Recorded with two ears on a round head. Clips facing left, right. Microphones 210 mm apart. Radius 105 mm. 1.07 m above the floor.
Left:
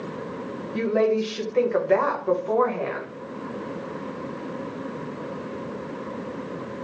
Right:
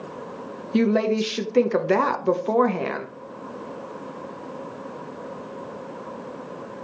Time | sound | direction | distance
0.7 | a woman speaking | 45° right (ahead or behind) | 0.6 m